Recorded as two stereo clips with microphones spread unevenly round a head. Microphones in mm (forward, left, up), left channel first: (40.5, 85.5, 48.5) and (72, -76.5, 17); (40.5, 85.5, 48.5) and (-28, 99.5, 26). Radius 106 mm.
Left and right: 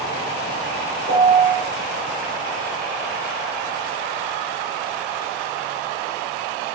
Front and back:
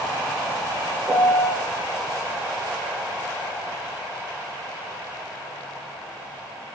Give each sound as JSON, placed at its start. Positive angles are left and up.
{"t": 1.1, "sound": "a piano", "azimuth_deg": 100, "distance_m": 1.2}